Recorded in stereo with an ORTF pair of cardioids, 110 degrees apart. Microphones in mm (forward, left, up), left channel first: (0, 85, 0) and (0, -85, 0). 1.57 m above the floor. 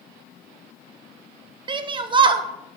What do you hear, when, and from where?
1.7 s a shout: 30° right, 0.9 m